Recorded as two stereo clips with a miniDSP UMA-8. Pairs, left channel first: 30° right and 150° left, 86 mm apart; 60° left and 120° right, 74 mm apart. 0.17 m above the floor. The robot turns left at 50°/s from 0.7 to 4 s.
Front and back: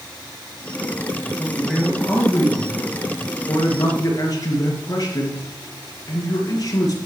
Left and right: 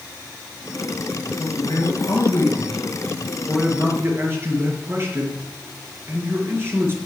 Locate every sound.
1.4 s a man speaking: 60° left, 2.5 m; by 7.0 s 70° right, 2.5 m